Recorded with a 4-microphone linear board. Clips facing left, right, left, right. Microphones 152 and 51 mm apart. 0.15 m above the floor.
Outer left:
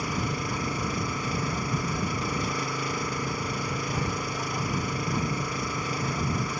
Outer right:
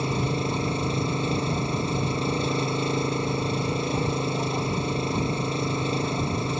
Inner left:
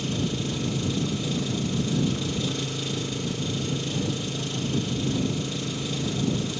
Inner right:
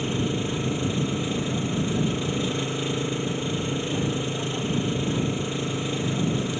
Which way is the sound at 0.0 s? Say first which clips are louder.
Outer right 4 dB, inner right 2 dB; 25° right (ahead or behind).